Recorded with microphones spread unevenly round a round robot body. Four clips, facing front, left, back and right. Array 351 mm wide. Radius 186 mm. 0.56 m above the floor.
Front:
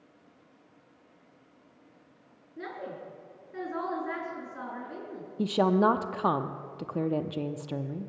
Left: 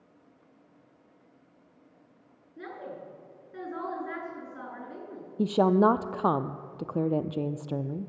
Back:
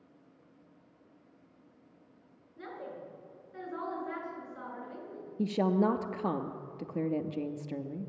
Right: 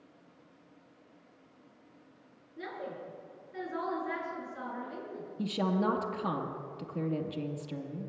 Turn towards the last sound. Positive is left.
turn(degrees=65)